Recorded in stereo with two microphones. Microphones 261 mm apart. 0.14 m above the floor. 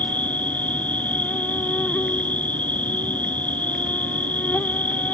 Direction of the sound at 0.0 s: 5° left (ahead or behind).